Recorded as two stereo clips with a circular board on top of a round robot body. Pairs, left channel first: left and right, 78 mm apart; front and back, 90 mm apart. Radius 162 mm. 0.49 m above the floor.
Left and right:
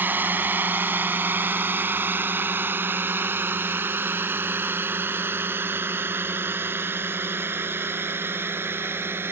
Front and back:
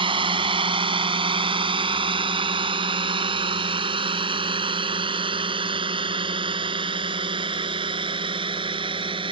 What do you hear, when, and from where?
0.0 s a drone: 155° right